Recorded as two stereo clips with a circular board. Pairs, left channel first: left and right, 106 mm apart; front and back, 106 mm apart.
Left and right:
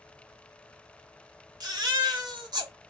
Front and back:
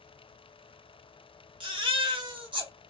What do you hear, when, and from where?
1.6 s a baby crying: 140° right, 0.9 m